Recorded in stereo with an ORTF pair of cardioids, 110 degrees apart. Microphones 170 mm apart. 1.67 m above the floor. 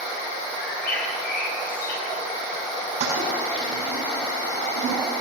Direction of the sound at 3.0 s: 45° right.